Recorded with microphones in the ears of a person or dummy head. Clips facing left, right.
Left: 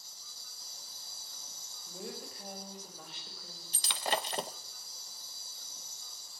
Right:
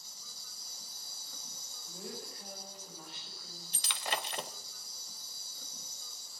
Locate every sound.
0.0 s an insect: 80° right, 1.8 m
1.9 s a woman speaking: 80° left, 4.5 m
3.7 s breaking glass: 35° left (ahead or behind), 0.6 m